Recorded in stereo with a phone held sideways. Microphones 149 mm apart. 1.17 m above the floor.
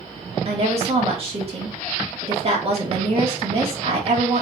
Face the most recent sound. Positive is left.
turn(degrees=-40)  # may be behind; listen again after turning